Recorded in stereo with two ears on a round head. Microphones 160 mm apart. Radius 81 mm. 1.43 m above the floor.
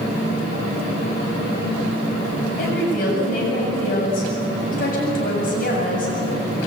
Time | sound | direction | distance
2.6 | a woman speaking | 50° left (ahead or behind) | 7.5 m